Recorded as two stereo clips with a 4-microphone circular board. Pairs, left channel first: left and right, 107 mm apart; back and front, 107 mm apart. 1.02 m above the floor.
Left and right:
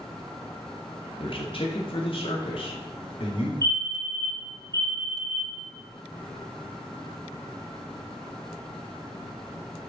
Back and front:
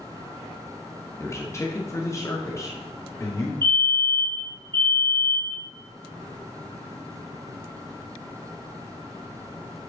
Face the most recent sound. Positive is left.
turn(degrees=-40)